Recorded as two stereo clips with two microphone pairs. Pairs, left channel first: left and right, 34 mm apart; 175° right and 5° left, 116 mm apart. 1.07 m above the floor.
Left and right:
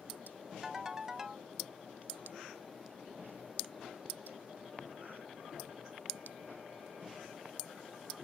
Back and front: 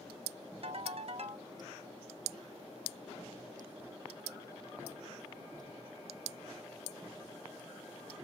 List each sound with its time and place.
0.6 s a ringtone: 10° right, 1.0 m